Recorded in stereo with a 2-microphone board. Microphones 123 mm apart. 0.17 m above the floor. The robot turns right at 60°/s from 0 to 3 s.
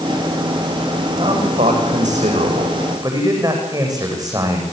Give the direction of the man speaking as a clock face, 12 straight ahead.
5 o'clock.